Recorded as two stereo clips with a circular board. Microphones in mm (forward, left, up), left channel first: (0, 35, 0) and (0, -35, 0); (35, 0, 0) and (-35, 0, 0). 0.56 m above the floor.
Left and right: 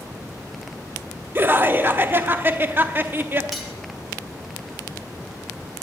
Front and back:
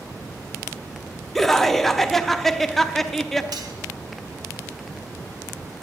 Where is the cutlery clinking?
Straight behind, 2 m.